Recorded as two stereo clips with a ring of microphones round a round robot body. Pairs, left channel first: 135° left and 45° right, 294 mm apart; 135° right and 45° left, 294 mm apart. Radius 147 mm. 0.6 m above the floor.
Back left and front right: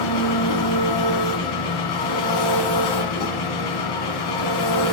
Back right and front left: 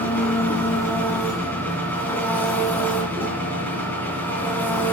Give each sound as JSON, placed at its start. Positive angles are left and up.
{"t": 0.0, "sound": "an engine running", "azimuth_deg": 140, "distance_m": 1.6}